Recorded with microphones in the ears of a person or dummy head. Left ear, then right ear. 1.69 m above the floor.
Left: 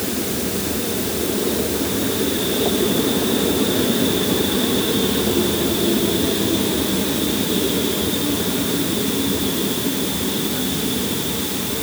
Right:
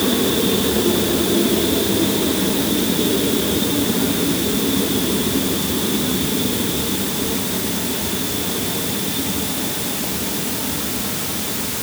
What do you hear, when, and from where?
Only background noise.